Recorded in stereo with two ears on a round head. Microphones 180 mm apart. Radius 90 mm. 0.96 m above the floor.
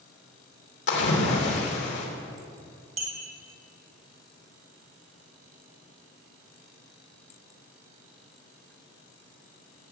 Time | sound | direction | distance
0.9 | a splash | 55° left (ahead or behind) | 3 m
3.0 | a clink | 35° right (ahead or behind) | 3 m